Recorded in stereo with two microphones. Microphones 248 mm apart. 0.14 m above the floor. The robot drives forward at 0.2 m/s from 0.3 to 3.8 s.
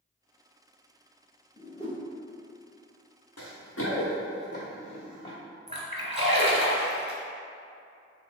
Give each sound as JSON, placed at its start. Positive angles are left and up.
{"t": 1.6, "sound": "a whoosh", "side_deg": 20, "distance_m": 1.0}
{"t": 3.4, "sound": "running footsteps", "side_deg": 80, "distance_m": 0.9}
{"t": 5.7, "sound": "a splash", "side_deg": -25, "distance_m": 0.7}